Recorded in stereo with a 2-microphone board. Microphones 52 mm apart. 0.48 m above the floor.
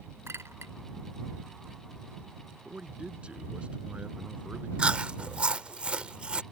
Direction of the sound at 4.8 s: 25° right (ahead or behind).